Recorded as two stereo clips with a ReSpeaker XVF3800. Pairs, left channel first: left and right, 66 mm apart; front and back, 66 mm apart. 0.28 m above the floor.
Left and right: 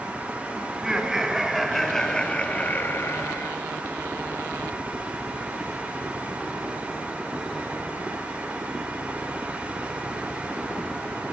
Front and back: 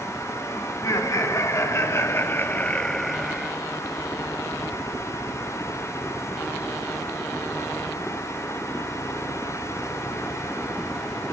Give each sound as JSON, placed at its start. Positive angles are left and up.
{"t": 0.7, "sound": "laughter", "azimuth_deg": -10, "distance_m": 3.0}